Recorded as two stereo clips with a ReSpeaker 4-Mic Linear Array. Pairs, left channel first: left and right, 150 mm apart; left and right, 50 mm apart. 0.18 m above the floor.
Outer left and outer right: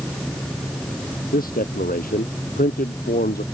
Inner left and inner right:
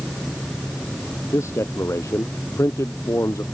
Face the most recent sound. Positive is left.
turn(degrees=75)  # may be behind; listen again after turning